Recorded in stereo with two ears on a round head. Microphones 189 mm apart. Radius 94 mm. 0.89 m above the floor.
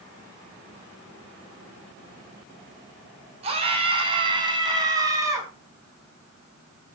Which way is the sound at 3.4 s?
30° right (ahead or behind).